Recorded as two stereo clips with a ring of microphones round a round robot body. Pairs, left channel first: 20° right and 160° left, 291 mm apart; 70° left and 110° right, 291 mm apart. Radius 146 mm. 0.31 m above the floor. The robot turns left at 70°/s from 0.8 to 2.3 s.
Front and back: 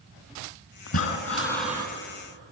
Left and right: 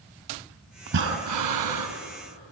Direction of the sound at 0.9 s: 60° right.